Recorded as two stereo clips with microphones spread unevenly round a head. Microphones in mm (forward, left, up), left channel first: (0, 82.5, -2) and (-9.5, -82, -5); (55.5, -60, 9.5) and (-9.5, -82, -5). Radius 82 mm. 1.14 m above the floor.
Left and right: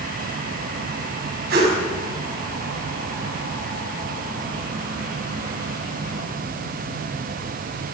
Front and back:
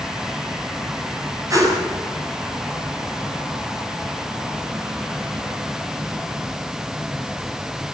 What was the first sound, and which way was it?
A whoosh, 125° right.